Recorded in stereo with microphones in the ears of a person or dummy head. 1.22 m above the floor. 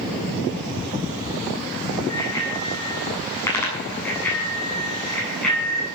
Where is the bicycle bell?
20° left (ahead or behind), 8.5 m; by 5.9 s centre (ahead or behind), 9 m.